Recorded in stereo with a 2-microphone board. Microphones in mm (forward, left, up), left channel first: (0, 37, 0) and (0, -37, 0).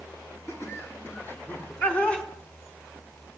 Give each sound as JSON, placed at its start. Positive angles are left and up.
{"t": 0.5, "sound": "laughter", "side_deg": 40, "distance_m": 4.0}